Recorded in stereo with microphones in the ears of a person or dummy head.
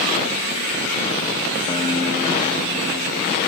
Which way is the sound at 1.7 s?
30° left (ahead or behind).